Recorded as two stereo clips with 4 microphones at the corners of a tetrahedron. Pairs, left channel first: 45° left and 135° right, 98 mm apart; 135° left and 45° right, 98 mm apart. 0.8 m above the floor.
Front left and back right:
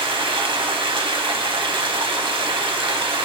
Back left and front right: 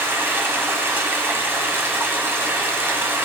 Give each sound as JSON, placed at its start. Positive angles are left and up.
{"t": 0.0, "sound": "running water", "azimuth_deg": -110, "distance_m": 1.8}